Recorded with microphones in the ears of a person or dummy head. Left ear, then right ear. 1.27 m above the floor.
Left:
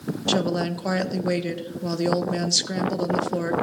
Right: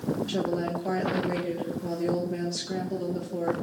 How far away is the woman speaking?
About 1.4 m.